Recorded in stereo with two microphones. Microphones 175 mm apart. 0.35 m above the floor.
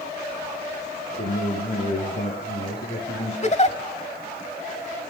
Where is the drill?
I don't hear a drill.